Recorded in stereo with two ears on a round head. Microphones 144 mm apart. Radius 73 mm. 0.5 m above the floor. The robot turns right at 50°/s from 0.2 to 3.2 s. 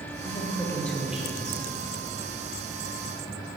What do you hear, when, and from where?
0.2 s a woman speaking: 140° left, 2 m; by 1.6 s 150° right, 2 m